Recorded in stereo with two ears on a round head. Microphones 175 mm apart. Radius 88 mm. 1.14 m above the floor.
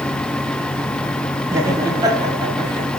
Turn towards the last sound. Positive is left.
turn(degrees=-30)  # may be behind; listen again after turning